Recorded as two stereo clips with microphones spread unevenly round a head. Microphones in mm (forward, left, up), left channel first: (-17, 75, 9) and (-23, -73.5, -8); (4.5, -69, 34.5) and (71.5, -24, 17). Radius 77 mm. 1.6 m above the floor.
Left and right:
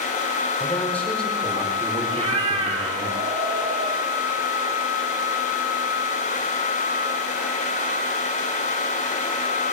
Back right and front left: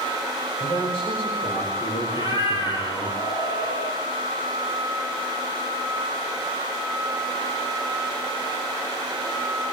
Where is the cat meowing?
145° right, 4 m.